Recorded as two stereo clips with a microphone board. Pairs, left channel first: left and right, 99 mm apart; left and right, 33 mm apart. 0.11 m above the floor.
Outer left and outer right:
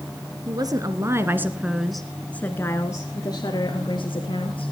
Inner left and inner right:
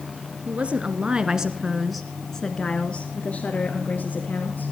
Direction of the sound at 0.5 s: 45° right (ahead or behind).